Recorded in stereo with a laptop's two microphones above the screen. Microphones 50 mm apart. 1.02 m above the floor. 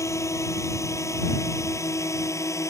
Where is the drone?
80° left; by 2.7 s 85° left.